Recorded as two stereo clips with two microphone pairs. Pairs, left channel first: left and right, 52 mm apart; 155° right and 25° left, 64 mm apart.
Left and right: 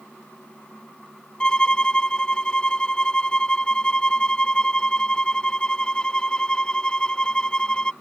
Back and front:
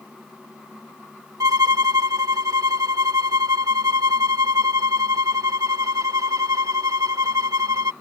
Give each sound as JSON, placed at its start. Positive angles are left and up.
{"t": 1.4, "sound": "a violin", "azimuth_deg": 20}